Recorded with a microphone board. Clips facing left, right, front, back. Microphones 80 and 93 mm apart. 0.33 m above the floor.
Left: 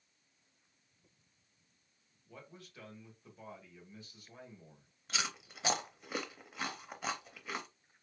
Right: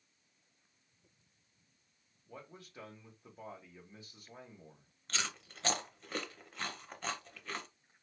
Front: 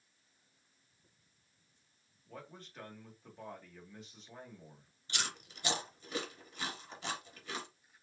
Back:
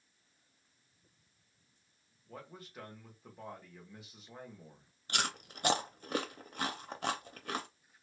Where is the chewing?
170° left, 0.6 m.